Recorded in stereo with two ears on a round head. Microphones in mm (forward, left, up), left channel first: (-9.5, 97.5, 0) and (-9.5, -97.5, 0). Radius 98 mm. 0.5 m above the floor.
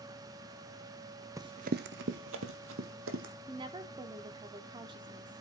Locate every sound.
1.4 s running footsteps: 15° right (ahead or behind), 0.5 m; by 3.3 s 60° right (ahead or behind), 1.8 m
3.5 s a woman speaking: 20° right (ahead or behind), 0.9 m